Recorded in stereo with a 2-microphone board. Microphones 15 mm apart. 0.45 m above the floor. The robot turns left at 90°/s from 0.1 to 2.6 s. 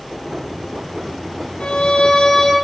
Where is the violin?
105° left, 3 m; by 2.5 s 20° left, 3 m.